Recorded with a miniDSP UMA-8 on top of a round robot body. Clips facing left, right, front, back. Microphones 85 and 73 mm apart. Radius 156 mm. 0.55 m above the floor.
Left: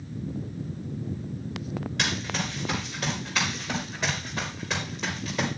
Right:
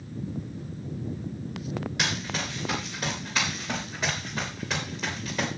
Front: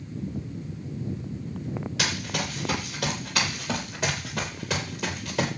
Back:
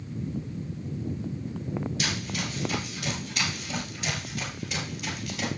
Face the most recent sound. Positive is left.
turn(degrees=0)